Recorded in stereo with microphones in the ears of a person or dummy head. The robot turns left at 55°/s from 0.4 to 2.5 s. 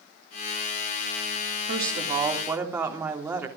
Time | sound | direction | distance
1.7 | a woman speaking | 125° right | 3 m